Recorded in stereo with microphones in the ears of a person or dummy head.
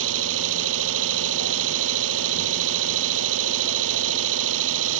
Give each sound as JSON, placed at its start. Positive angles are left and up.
{"t": 0.0, "sound": "an engine running", "side_deg": -75}